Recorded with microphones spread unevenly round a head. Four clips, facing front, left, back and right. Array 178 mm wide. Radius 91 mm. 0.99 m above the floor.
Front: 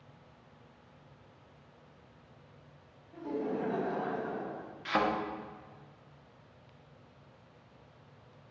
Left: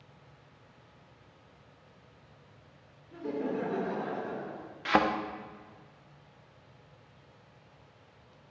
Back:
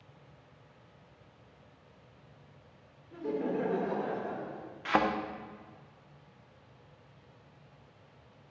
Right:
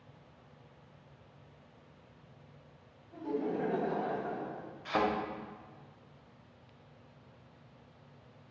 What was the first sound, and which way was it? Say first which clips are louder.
Laughter: left 1 dB, back 2 dB; 130° left.